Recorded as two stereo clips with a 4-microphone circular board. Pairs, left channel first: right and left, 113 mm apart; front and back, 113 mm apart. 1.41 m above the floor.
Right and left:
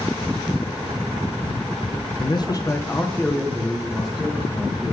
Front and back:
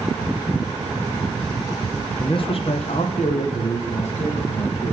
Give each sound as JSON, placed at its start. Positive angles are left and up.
{"t": 2.2, "sound": "a man speaking", "azimuth_deg": -50, "distance_m": 0.7}